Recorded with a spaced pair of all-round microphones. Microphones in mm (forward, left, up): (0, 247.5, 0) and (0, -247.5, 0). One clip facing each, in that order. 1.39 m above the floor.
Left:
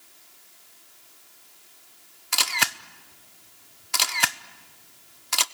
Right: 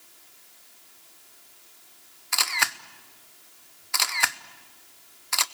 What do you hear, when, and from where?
2.3 s a camera shutter: 55° left (ahead or behind), 0.7 m